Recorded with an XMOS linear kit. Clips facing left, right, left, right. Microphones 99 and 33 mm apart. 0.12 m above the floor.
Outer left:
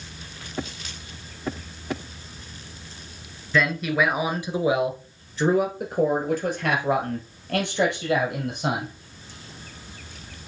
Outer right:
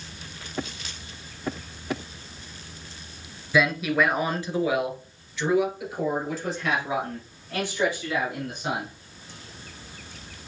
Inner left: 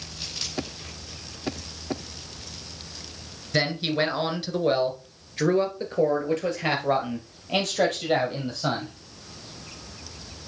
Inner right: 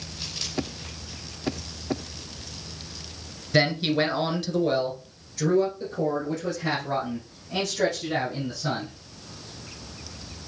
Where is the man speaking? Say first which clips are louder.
Even, inner right 2 dB; 10° right (ahead or behind), 1.4 m; by 8.9 s 70° left (ahead or behind), 3.5 m.